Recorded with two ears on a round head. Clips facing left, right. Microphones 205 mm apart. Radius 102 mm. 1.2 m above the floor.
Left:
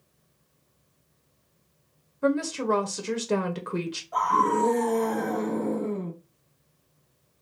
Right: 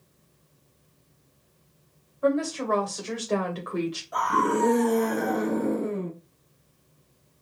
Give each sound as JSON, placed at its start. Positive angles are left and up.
{"t": 2.2, "sound": "a woman speaking", "side_deg": 35, "distance_m": 0.7}
{"t": 4.1, "sound": "a scream", "side_deg": -30, "distance_m": 2.5}